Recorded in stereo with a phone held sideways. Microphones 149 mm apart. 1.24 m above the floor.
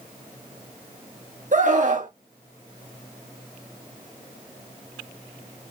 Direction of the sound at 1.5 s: 55° right (ahead or behind).